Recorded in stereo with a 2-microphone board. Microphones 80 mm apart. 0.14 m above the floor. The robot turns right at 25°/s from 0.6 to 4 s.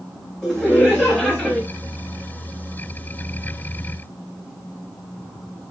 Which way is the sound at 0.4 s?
5° left (ahead or behind).